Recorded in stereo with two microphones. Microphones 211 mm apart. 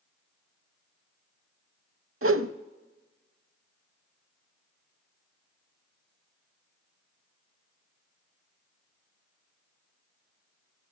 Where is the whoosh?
85° right, 0.6 m.